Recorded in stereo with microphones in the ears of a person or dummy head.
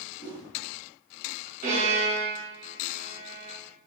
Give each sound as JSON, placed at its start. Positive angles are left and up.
{"t": 0.2, "sound": "a whoosh", "side_deg": 45, "distance_m": 1.8}
{"t": 1.6, "sound": "a violin", "side_deg": -40, "distance_m": 1.8}